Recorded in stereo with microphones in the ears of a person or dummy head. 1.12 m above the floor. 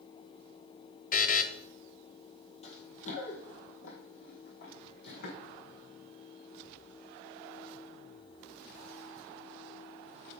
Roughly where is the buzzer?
Left.